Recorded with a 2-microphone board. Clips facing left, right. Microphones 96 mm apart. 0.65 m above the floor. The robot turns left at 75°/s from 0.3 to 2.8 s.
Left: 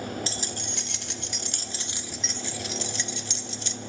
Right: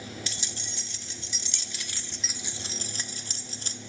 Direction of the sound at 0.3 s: 145° left.